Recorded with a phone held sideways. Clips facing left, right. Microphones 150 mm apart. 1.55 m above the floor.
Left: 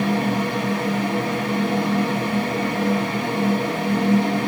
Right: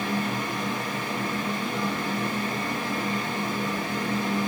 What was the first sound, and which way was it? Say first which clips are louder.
A fan: left 7 dB; 85° left.